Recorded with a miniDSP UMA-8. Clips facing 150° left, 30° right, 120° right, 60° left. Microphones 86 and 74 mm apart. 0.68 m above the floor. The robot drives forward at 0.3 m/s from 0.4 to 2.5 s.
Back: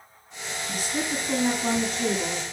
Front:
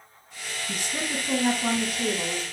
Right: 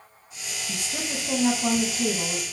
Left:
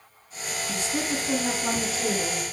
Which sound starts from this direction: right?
A woman speaking, at 0.7 s.